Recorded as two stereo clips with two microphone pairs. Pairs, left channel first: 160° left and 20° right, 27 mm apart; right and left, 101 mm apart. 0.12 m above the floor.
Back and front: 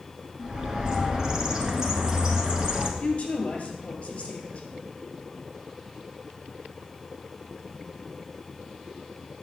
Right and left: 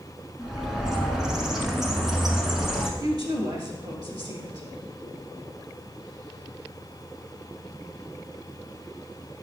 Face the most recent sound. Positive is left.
turn(degrees=115)